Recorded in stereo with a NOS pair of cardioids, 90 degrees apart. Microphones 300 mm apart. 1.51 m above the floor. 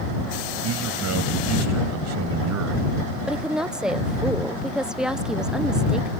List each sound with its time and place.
0.6 s a man speaking: 60° right
3.2 s a woman speaking: straight ahead